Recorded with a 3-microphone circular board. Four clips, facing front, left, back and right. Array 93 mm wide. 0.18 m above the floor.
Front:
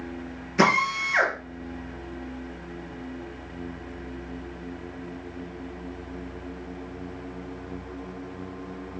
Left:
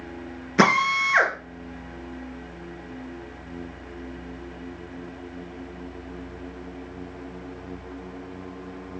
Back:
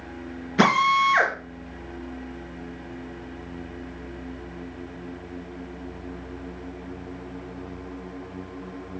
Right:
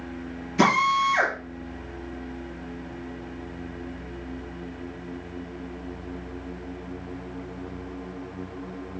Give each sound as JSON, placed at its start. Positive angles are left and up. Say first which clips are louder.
{"t": 0.6, "sound": "a drill", "louder": "even, back 3 dB", "azimuth_deg": 105, "distance_m": 3.0}